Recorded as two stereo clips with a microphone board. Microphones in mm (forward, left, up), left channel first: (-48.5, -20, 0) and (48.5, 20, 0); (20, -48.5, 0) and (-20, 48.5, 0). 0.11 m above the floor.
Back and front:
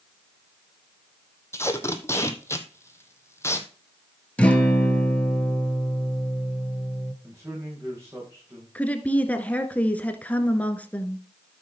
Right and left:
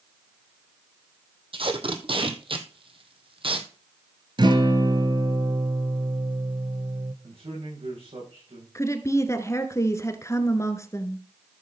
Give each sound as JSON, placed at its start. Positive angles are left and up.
{"t": 1.5, "sound": "tape being pulled", "azimuth_deg": 140, "distance_m": 1.4}
{"t": 4.4, "sound": "a guitar", "azimuth_deg": 130, "distance_m": 1.9}
{"t": 7.2, "sound": "a man speaking", "azimuth_deg": 85, "distance_m": 6.5}
{"t": 8.8, "sound": "a woman speaking", "azimuth_deg": -95, "distance_m": 1.3}